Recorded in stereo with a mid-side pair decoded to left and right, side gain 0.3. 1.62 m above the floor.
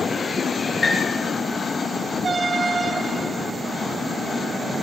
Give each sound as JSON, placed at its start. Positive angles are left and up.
{"t": 0.8, "sound": "a piano", "azimuth_deg": 40, "distance_m": 5.5}